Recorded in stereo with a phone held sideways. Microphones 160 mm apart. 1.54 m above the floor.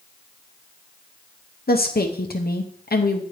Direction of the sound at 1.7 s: 80° left.